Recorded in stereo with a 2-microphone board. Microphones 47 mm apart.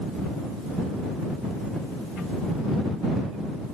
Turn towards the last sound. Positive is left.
No sound to turn to.